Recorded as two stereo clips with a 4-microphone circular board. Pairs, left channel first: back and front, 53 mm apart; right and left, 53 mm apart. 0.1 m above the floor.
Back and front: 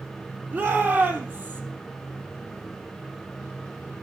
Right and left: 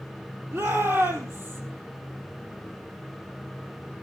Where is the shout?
55° left, 3.5 m.